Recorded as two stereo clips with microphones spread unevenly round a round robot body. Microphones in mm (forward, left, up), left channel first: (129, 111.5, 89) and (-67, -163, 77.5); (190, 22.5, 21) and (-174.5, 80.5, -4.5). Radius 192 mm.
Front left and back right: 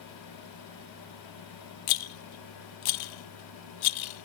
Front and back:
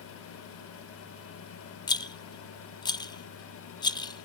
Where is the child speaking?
No child speaking in this recording.